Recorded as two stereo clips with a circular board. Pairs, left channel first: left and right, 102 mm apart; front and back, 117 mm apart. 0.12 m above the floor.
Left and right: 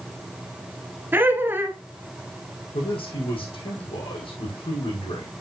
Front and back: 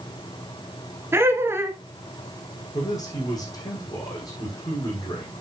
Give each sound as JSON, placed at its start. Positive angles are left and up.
{"t": 1.1, "sound": "laughter", "azimuth_deg": -135, "distance_m": 1.5}
{"t": 2.7, "sound": "a man speaking", "azimuth_deg": 60, "distance_m": 5.5}